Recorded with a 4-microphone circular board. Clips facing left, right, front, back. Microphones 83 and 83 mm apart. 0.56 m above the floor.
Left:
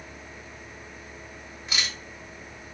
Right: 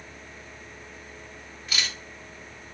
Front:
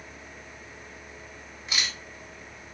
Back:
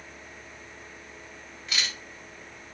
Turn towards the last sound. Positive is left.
turn(degrees=45)